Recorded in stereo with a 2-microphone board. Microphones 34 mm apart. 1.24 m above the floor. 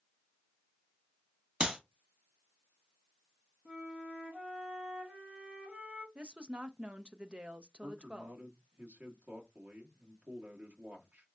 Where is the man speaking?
90° right, 1.6 m.